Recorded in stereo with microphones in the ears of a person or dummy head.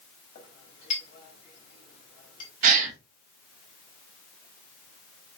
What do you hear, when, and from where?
0.3 s a clink: 35° left (ahead or behind), 1.9 m
2.6 s a gasp: 40° right (ahead or behind), 0.9 m